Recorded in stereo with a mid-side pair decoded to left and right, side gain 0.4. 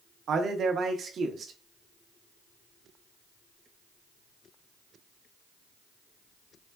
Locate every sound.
0.3 s a man speaking: 60° right, 0.9 m